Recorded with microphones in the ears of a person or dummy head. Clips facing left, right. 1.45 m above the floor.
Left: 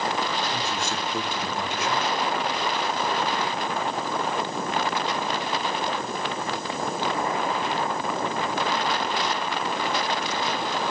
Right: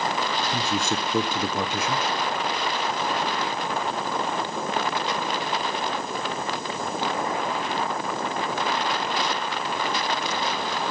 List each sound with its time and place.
0.5 s a man speaking: 70° right (ahead or behind), 1.2 m